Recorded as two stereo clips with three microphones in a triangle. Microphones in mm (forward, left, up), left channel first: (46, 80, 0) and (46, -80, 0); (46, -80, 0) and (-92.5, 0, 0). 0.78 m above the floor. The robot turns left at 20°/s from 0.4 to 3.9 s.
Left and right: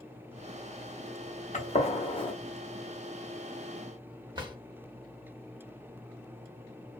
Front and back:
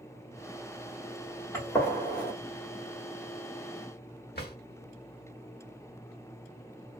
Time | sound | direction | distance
1.5 | a gunshot | 45° left | 0.9 m
4.3 | a drawer | 25° right | 1.0 m